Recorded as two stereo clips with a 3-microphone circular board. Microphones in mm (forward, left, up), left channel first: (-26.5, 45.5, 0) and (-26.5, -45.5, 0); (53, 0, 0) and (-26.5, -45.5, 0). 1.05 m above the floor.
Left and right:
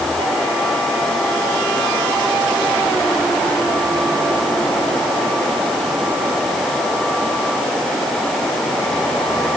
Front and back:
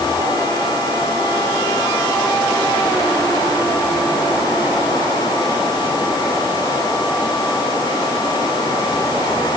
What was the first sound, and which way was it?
Only background noise.